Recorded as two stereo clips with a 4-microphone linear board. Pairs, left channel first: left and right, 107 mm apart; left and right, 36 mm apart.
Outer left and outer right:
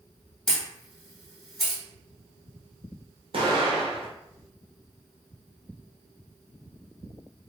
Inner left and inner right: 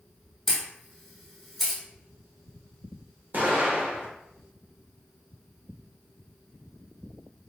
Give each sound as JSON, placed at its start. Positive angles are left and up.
{"t": 0.5, "sound": "a camera shutter", "side_deg": 0, "distance_m": 1.6}
{"t": 3.3, "sound": "an explosion", "side_deg": -60, "distance_m": 0.7}